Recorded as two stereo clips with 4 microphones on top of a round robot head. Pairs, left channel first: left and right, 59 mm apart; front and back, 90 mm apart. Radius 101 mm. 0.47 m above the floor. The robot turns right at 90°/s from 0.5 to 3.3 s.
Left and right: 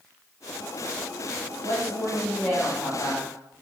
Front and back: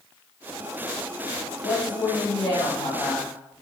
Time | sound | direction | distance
1.6 | a woman speaking | 60° right | 3 m